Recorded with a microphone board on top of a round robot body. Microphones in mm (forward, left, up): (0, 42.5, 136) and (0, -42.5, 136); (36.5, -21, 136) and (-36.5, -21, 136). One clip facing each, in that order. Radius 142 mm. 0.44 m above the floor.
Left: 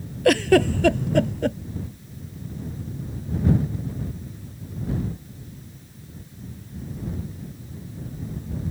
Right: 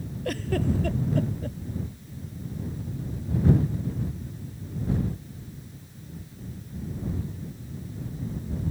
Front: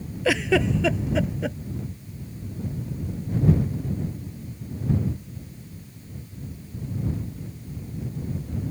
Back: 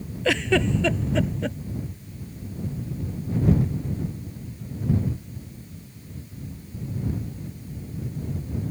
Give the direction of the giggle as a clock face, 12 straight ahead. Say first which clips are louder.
Left 11 dB, front 1 dB; 9 o'clock.